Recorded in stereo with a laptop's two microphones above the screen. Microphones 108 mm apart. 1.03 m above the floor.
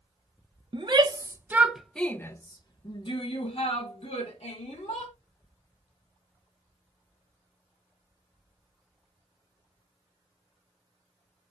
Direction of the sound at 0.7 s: 45° right (ahead or behind).